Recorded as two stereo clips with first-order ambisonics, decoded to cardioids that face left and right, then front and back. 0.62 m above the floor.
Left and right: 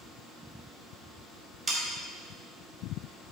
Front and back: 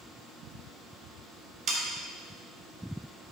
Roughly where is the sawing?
Behind right.